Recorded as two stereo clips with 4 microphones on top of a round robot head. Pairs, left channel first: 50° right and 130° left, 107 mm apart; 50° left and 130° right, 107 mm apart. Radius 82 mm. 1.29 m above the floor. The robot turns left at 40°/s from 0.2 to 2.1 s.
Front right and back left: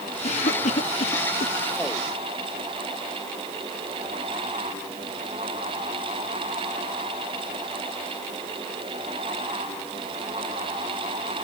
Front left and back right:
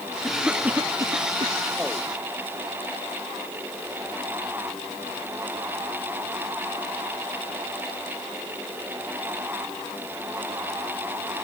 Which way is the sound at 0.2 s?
35° right.